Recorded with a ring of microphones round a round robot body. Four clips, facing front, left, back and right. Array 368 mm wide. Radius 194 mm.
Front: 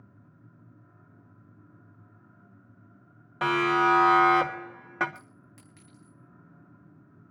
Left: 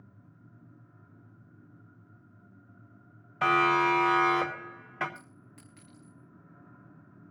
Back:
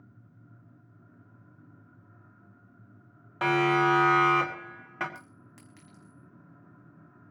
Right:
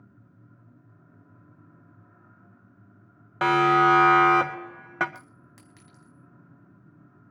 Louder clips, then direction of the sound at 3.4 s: Right 5 dB, even; 90° right.